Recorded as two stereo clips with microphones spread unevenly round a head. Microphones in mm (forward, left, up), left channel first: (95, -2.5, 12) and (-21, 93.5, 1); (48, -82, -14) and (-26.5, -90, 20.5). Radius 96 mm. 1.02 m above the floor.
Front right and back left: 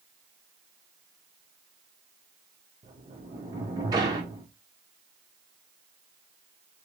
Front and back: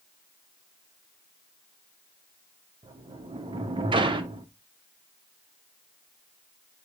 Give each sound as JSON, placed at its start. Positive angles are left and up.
{"t": 2.8, "sound": "a sliding door", "azimuth_deg": -150, "distance_m": 0.6}